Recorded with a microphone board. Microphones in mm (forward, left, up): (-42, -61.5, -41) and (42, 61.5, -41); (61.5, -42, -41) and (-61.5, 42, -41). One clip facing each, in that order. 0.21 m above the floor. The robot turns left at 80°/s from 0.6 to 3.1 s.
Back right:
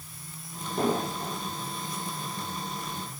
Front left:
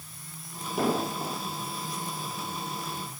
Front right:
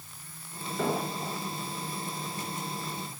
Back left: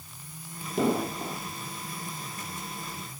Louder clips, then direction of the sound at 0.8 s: Even, back left 4 dB; 135° left.